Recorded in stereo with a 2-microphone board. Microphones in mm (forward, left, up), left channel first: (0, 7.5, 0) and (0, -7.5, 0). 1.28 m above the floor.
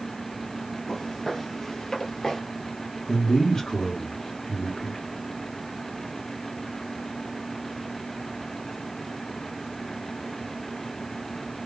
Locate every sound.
0.9 s footsteps: 40° left (ahead or behind), 2.0 m; by 2.4 s 45° left (ahead or behind), 1.7 m
3.1 s a man speaking: 75° left (ahead or behind), 1.3 m